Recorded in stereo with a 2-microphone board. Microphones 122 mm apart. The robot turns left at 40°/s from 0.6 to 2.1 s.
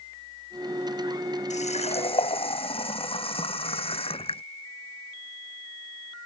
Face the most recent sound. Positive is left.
turn(degrees=50)  # may be behind; listen again after turning